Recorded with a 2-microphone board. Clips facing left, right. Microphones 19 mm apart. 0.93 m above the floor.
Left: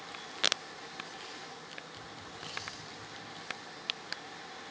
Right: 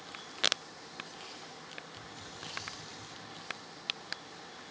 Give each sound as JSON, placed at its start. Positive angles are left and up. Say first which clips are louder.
{"t": 2.0, "sound": "a hiss", "louder": "left 1 dB", "side_deg": -65, "distance_m": 2.0}